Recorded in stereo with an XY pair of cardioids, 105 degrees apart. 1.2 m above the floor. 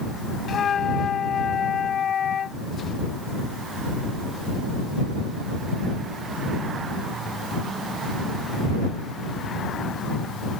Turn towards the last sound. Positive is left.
turn(degrees=50)